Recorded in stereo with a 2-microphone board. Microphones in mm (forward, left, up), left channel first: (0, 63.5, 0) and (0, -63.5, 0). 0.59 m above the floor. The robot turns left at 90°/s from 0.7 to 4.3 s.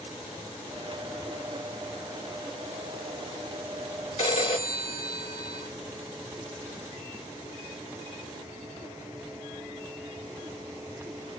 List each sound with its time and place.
4.2 s a phone ringing: 55° left (ahead or behind), 1.0 m